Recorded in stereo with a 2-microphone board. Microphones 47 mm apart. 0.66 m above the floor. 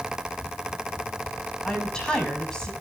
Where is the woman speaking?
15° left (ahead or behind), 5 m.